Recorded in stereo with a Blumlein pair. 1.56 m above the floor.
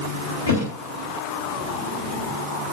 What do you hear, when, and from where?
0.5 s a thud: 65° left, 5 m